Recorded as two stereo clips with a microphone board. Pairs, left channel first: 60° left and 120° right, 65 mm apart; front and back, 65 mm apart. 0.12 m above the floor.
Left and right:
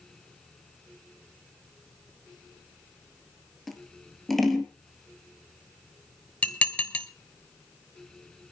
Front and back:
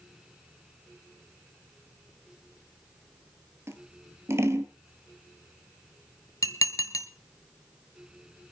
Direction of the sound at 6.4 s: 5° right.